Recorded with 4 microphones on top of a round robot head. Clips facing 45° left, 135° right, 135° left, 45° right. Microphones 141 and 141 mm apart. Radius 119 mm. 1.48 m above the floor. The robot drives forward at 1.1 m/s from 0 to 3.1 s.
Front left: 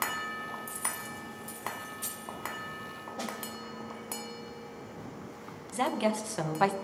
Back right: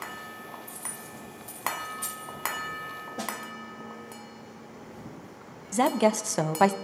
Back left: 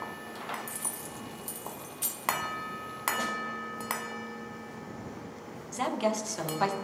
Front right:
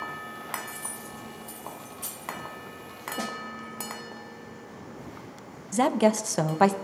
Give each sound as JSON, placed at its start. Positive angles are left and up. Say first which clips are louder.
{"t": 0.7, "sound": "keys jangling", "louder": "front left 2 dB, front right 1 dB", "azimuth_deg": 75, "distance_m": 0.8}
{"t": 3.2, "sound": "a snare drum", "louder": "back right 2 dB, front right 5 dB", "azimuth_deg": -95, "distance_m": 1.1}
{"t": 5.7, "sound": "a woman speaking", "louder": "back right 6 dB, front right 8 dB", "azimuth_deg": -85, "distance_m": 0.5}